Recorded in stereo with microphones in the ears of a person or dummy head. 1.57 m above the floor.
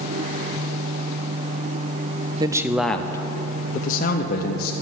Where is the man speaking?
25° right (ahead or behind), 0.6 m; by 4.7 s 60° left (ahead or behind), 1.3 m.